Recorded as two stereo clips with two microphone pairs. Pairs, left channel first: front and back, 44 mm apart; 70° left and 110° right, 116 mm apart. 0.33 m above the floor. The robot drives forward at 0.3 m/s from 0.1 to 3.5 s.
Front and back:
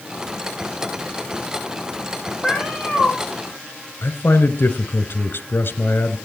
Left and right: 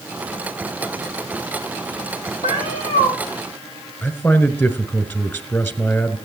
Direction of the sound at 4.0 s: 10° left.